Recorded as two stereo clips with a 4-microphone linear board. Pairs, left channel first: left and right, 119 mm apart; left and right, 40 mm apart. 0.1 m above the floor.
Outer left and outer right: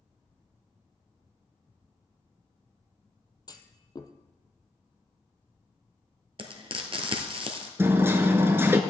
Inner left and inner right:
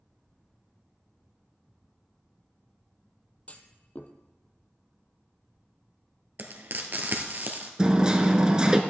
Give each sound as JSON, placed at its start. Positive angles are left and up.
{"t": 3.5, "sound": "a clunk", "side_deg": 35, "distance_m": 0.8}
{"t": 6.4, "sound": "frying", "side_deg": -50, "distance_m": 1.2}
{"t": 7.8, "sound": "hammering", "side_deg": -20, "distance_m": 0.9}